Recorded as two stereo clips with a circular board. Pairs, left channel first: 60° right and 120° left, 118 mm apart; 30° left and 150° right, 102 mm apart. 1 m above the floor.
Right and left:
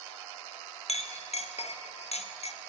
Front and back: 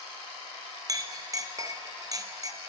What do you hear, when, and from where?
0.9 s a clink: 90° right, 0.7 m